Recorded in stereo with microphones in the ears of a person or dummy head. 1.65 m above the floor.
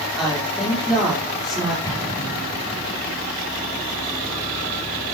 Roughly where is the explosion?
Centre.